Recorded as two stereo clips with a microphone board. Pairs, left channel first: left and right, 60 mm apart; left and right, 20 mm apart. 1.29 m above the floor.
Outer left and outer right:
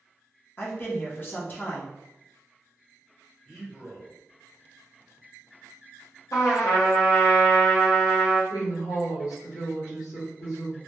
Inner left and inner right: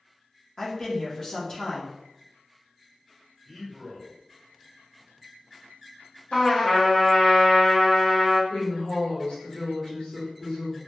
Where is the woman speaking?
85° left, 1.1 m.